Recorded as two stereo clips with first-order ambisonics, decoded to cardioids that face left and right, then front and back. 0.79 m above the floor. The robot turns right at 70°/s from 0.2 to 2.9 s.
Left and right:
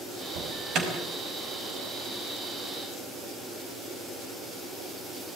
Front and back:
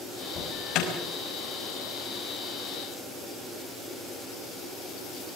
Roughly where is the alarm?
Right.